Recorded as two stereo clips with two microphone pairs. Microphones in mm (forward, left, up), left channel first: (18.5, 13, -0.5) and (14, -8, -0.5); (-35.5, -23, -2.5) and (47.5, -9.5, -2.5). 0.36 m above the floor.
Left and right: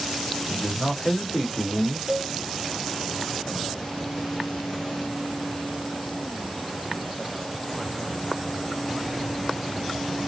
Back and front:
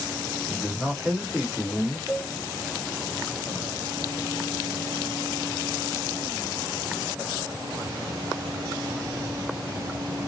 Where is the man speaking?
45° left, 1.2 m.